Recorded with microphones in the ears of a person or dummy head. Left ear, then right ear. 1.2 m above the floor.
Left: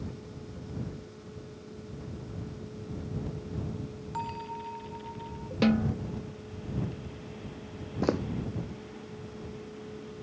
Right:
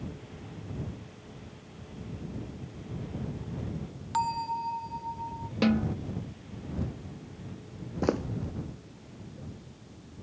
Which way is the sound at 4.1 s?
35° right (ahead or behind).